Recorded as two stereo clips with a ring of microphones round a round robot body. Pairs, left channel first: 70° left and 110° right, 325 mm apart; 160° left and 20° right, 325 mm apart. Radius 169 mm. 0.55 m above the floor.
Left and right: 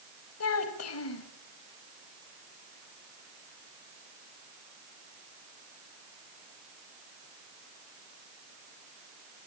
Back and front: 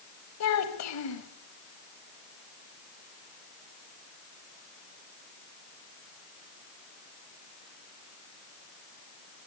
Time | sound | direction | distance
0.4 | a child speaking | 115° left | 1.8 m